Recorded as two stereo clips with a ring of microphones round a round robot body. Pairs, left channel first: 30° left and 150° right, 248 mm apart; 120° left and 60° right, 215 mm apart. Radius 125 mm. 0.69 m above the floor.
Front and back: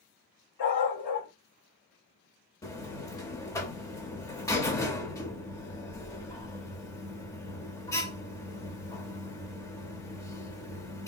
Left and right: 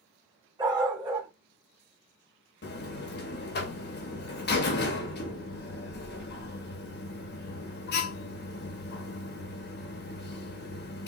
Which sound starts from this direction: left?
A buzzer, at 2.6 s.